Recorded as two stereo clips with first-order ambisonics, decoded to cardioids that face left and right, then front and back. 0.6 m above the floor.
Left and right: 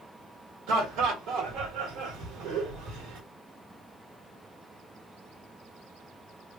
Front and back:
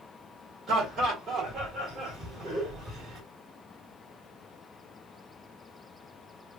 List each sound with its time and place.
0.7 s laughter: 100° right, 1.5 m